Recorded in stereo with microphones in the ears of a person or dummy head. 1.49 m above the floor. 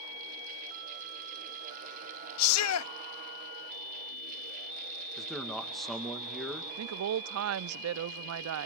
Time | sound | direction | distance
2.4 | a shout | 75° left (ahead or behind) | 0.5 m
5.2 | a man speaking | centre (ahead or behind) | 2 m
6.8 | a woman speaking | 80° right | 0.5 m